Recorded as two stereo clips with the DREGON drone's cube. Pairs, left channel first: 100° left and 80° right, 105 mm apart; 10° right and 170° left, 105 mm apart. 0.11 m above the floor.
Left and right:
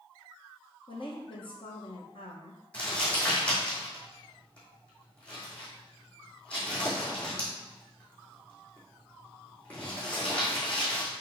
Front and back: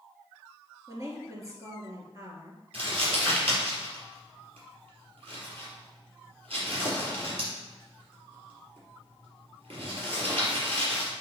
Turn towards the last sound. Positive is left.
turn(degrees=180)